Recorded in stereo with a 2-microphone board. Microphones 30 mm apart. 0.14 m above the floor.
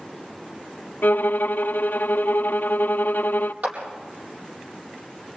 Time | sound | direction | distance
1.0 | a violin | 75° left (ahead or behind) | 0.8 m
3.6 | a clap | 55° right (ahead or behind) | 4.5 m